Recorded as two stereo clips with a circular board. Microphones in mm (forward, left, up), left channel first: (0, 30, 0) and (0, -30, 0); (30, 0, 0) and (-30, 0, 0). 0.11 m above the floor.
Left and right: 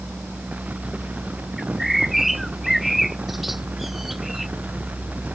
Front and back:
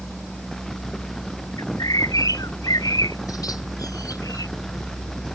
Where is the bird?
5° right.